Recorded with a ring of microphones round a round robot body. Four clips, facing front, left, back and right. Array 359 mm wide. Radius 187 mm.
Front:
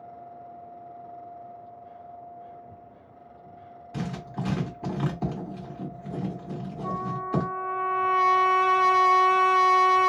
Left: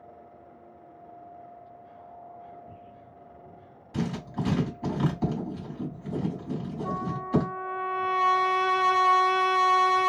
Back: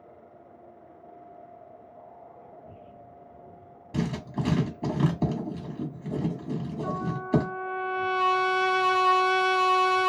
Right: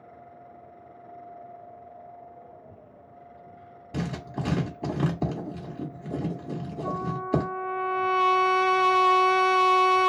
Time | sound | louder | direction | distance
3.9 | writing | left 1 dB, back 3 dB | 135° right | 1.6 m
6.8 | a trumpet | right 3 dB, front 4 dB | 115° right | 1.0 m